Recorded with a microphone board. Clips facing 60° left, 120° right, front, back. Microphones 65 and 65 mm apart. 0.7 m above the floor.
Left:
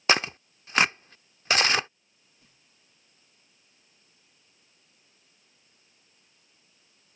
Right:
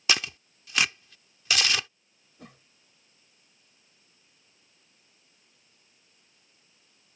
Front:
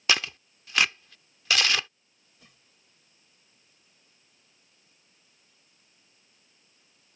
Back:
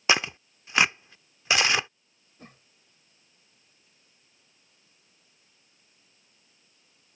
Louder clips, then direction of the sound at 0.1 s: Left 5 dB, back 3 dB; 115° left.